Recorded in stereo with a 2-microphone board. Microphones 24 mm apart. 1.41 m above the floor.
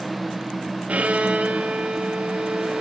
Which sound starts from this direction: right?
A violin, at 0.9 s.